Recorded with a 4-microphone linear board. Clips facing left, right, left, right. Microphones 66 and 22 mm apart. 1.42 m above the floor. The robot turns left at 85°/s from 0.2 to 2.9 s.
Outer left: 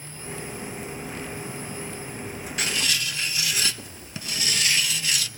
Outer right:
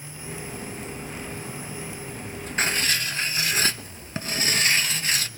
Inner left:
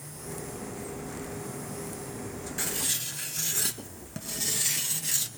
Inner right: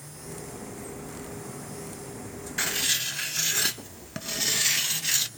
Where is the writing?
35° right (ahead or behind), 0.7 m; by 5.3 s 40° right (ahead or behind), 0.7 m.